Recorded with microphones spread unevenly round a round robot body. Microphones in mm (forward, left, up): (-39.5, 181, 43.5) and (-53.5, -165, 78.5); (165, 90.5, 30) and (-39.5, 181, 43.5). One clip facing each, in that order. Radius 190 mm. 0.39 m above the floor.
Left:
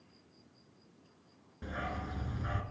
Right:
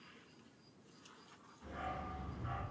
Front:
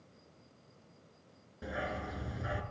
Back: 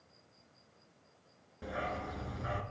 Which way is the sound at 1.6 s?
60° left.